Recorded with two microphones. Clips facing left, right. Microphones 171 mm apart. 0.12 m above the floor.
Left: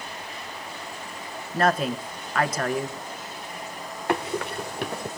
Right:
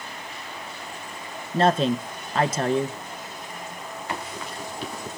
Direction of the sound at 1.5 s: 25° right (ahead or behind).